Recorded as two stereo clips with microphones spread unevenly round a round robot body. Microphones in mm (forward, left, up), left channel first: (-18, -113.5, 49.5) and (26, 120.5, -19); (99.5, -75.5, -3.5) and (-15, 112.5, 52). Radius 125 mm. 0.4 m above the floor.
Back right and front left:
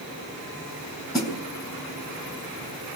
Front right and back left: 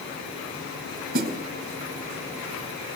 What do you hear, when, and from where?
1.1 s a snare drum: straight behind, 4.5 m